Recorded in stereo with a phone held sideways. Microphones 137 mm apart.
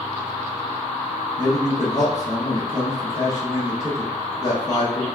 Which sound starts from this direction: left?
A man speaking, at 1.4 s.